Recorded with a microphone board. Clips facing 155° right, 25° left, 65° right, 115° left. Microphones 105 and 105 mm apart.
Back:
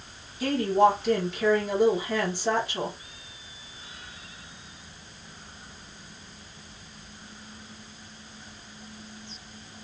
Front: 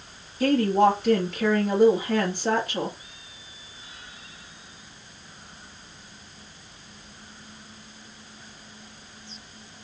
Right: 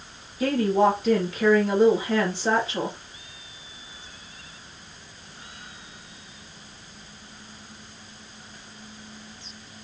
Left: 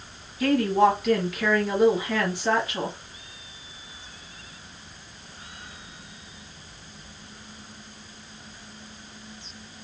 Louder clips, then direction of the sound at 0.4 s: Front 2 dB, left 1 dB; 10° right.